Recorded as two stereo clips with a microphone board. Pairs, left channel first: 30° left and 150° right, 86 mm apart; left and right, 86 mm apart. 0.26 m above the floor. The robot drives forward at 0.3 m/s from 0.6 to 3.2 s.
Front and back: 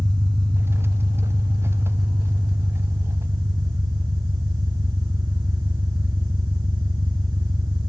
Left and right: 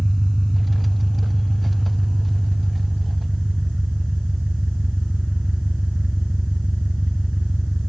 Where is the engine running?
Straight behind, 3 m.